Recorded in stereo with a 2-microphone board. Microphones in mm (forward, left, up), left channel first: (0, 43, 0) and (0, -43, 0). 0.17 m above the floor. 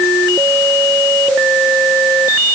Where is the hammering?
I don't hear hammering.